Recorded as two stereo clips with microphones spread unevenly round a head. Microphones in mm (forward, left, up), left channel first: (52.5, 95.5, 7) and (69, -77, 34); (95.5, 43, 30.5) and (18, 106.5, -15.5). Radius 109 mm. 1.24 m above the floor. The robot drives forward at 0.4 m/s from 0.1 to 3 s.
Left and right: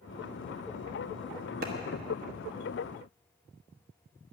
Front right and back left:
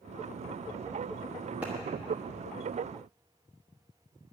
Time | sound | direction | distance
1.6 | a clap | 130° right | 1.1 m